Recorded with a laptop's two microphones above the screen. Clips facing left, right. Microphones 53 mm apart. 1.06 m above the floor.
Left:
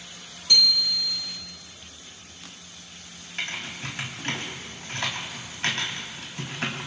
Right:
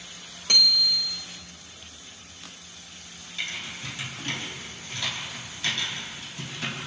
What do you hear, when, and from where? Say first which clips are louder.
0.5 s a bicycle bell: even; 55° right (ahead or behind), 3 m
3.4 s typing on a keyboard: left 2 dB; 50° left (ahead or behind), 3.5 m